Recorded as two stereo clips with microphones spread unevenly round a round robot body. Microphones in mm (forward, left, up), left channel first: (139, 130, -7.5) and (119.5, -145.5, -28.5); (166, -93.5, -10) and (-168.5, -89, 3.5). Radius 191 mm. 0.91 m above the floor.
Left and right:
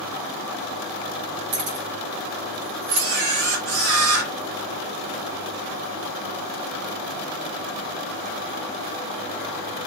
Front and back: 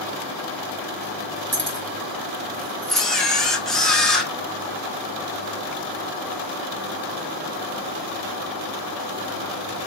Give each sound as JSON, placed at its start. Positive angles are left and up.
{"t": 1.5, "sound": "keys jangling", "azimuth_deg": -125, "distance_m": 4.5}
{"t": 2.9, "sound": "a camera shutter", "azimuth_deg": -90, "distance_m": 2.5}